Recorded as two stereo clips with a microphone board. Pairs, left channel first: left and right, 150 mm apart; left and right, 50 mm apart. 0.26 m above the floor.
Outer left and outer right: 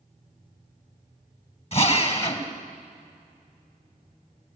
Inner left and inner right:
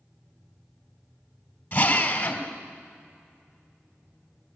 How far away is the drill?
About 2 m.